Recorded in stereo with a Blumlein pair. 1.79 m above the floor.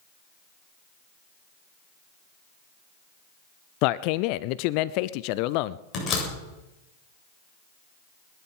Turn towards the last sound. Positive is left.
turn(degrees=30)